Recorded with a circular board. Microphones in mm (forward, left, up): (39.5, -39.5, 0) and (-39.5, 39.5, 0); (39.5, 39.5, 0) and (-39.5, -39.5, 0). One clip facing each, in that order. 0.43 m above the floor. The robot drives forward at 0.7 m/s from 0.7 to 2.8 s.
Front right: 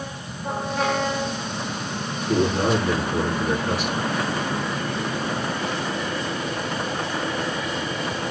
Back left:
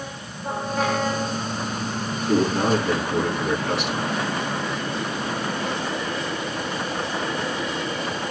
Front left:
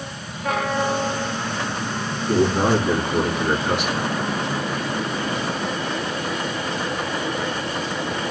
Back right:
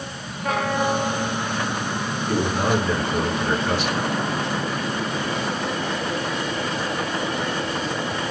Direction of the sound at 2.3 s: 115° left.